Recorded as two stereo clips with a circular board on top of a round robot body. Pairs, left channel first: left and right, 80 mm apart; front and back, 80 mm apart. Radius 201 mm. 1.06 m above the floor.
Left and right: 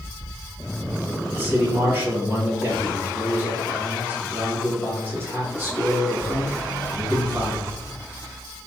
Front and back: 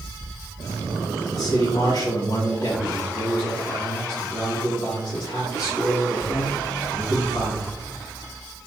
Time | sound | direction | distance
1.3 | a man speaking | 30° right | 3 m